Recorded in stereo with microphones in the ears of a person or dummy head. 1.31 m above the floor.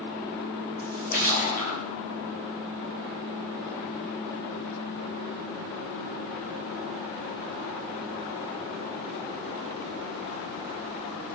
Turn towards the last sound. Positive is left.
turn(degrees=50)  # may be behind; listen again after turning